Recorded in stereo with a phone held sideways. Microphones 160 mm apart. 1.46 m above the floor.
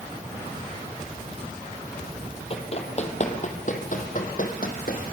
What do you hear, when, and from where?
2.5 s running footsteps: 40° left (ahead or behind), 2.5 m; by 5.0 s 65° left (ahead or behind), 3.5 m